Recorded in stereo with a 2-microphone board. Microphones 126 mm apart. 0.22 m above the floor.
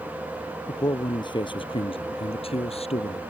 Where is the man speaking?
30° left (ahead or behind); by 3.2 s 55° left (ahead or behind).